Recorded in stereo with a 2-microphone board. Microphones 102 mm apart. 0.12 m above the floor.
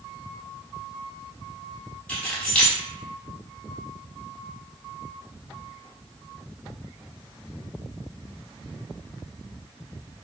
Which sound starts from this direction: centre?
Keys jangling, at 2.1 s.